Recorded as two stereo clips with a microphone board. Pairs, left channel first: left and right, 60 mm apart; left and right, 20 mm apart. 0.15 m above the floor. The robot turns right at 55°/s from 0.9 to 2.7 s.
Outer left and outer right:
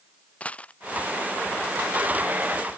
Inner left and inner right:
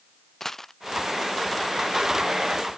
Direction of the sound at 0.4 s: 20° left (ahead or behind).